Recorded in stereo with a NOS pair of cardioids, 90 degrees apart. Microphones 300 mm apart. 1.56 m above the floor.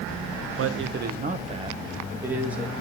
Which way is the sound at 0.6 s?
55° right.